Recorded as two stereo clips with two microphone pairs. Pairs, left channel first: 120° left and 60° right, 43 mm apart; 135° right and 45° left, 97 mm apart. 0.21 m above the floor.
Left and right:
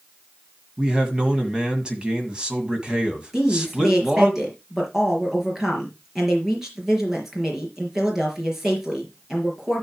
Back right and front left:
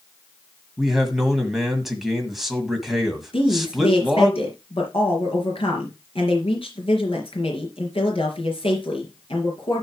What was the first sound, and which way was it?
A man speaking, 35° right.